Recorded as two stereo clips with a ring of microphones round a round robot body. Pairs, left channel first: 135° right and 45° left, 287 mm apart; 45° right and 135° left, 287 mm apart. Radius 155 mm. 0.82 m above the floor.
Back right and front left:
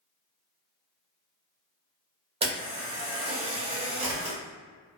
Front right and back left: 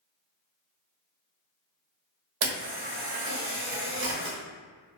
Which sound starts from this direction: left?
A camera shutter, at 2.4 s.